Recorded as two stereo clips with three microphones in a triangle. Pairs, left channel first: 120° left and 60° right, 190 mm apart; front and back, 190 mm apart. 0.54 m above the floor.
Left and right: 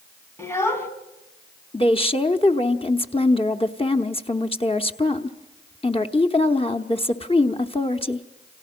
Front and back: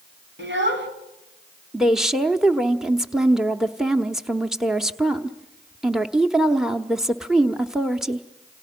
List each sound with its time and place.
0.4 s a child speaking: 165° right, 3.5 m
1.7 s a woman speaking: 95° left, 1.1 m